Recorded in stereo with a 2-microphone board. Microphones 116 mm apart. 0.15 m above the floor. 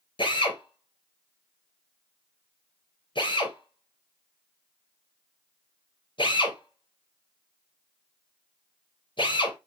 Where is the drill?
40° left (ahead or behind), 4.5 m.